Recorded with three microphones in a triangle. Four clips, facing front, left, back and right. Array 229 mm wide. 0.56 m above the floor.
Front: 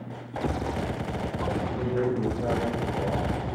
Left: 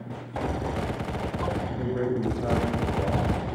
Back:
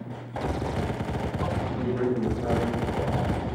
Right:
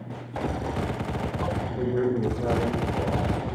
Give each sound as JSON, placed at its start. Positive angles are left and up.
{"t": 1.8, "sound": "a man speaking", "azimuth_deg": -65, "distance_m": 2.5}